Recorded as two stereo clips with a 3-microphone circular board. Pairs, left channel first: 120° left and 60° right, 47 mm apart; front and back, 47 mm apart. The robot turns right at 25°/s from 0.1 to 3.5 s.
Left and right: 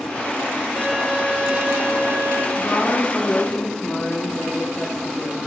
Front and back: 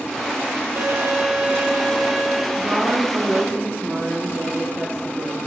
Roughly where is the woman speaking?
Behind left.